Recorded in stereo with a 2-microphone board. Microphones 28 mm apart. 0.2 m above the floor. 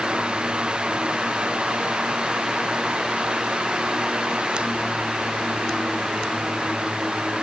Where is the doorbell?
No doorbell in this recording.